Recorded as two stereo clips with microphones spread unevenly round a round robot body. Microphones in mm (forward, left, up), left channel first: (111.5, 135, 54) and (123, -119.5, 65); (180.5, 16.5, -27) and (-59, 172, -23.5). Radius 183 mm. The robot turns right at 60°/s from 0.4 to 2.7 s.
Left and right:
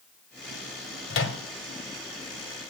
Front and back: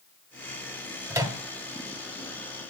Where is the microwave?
65° left, 1.3 m; by 1.4 s 85° left, 1.3 m.